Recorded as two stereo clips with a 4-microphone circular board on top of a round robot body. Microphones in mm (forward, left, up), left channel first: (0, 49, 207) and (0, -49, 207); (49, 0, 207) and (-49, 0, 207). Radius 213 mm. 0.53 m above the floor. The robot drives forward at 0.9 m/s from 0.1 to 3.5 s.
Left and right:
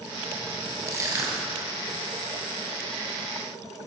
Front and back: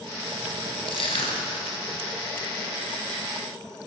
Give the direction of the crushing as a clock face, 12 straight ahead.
1 o'clock.